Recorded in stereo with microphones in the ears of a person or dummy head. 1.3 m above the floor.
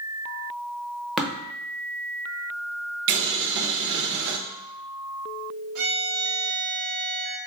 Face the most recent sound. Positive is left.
turn(degrees=-75)  # may be behind; listen again after turning